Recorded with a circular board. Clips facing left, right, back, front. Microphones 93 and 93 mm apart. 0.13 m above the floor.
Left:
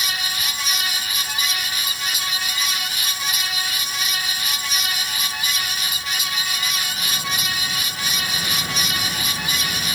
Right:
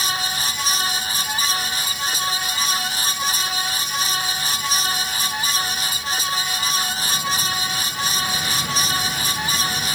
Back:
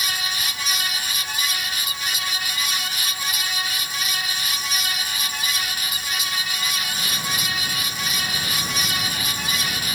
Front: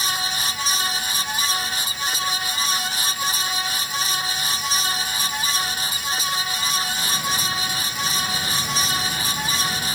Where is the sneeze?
No sneeze in this recording.